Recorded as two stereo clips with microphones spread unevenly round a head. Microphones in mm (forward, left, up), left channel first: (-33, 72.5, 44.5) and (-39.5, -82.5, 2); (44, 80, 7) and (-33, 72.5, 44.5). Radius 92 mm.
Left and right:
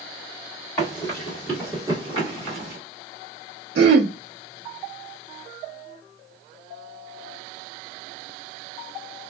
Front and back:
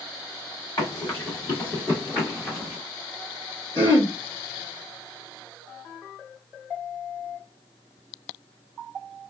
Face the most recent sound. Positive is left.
turn(degrees=-80)